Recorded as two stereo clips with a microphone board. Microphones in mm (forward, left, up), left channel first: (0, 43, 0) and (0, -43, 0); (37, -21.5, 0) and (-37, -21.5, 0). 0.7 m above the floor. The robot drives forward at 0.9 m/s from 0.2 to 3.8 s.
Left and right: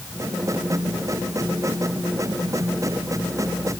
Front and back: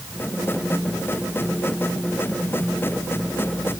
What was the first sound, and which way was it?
Only background noise.